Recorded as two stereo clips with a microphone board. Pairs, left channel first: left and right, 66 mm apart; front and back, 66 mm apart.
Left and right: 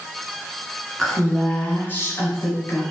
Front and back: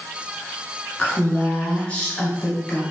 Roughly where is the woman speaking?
Ahead.